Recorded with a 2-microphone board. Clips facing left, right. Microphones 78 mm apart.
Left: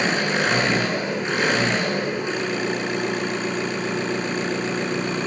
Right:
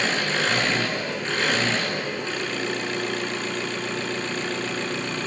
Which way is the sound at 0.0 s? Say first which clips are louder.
Left 3 dB; 15° left (ahead or behind).